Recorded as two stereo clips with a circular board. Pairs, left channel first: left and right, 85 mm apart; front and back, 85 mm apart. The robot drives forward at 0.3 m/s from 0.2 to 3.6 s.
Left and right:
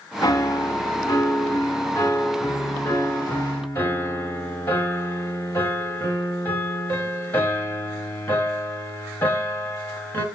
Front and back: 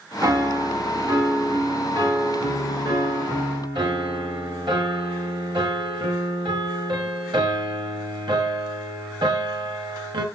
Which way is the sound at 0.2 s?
135° left.